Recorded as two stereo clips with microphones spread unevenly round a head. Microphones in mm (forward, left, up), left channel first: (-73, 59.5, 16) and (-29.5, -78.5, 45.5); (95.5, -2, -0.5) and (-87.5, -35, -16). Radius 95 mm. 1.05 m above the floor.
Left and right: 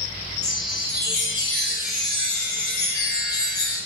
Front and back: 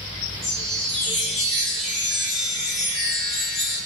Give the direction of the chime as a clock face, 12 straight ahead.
9 o'clock.